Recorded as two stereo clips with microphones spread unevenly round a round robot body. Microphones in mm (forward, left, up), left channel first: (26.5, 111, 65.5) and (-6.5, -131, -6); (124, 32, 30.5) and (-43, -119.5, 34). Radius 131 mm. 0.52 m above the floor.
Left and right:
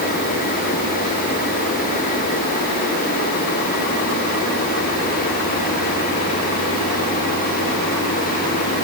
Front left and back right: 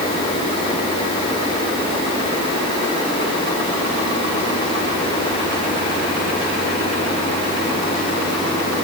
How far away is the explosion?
No explosion in this recording.